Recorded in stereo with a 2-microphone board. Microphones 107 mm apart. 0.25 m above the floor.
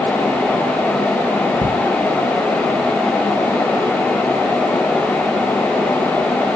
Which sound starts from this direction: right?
Ticking, at 1.6 s.